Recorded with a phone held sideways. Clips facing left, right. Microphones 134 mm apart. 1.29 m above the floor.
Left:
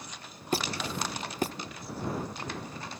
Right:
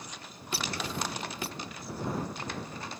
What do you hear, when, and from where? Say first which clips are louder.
0.5 s a squeak: left 3 dB; 45° left (ahead or behind)